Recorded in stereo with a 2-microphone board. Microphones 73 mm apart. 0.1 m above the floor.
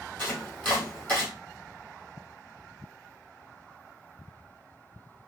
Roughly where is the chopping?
Left.